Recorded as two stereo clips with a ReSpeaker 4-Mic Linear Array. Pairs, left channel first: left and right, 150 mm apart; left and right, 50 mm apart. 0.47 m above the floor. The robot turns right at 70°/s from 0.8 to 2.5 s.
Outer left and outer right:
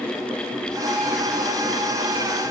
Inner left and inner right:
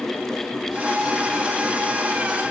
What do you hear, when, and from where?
Only background noise.